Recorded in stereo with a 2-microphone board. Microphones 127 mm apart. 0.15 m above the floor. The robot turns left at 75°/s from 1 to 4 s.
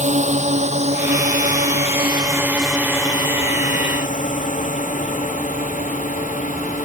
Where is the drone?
65° right (ahead or behind); by 6.8 s 85° left.